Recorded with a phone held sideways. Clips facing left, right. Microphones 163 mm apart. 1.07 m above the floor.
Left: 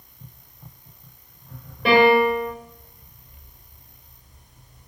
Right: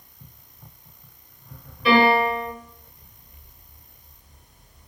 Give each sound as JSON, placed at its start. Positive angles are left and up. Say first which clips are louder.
{"t": 1.9, "sound": "a piano", "louder": "left 3 dB", "side_deg": 60, "distance_m": 1.2}